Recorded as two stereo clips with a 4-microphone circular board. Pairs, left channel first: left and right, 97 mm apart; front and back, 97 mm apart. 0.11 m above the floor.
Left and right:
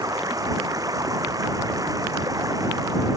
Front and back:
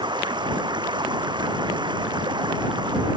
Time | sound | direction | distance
0.0 | running water | 145° right | ?